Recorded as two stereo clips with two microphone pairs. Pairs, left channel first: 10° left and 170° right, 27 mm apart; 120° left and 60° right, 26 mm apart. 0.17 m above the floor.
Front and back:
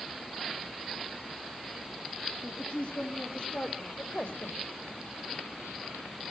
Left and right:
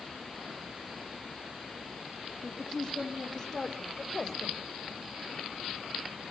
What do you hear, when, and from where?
2.4 s a woman speaking: 35° left, 5 m; by 4.6 s 50° left, 5.5 m